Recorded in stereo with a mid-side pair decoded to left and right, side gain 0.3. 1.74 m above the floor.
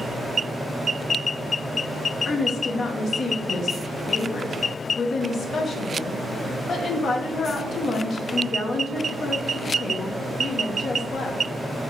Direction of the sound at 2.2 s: 70° left.